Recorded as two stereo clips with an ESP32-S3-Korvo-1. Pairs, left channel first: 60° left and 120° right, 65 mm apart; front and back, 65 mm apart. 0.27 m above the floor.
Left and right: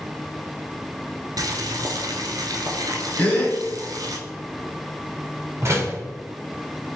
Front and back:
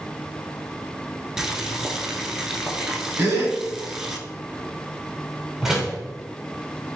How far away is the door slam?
About 1.2 m.